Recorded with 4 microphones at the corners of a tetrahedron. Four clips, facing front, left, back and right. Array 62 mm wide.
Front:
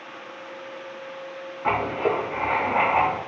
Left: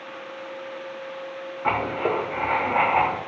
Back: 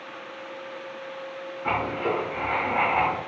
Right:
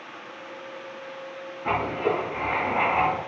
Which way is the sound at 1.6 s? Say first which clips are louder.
Left 1 dB, front 3 dB; 55° left.